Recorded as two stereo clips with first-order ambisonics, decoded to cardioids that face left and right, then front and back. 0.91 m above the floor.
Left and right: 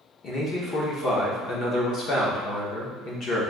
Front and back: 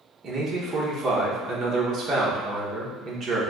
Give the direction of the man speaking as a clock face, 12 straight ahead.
8 o'clock.